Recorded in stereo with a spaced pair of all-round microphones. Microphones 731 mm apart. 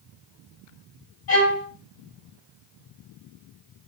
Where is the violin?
65° left (ahead or behind), 5 m.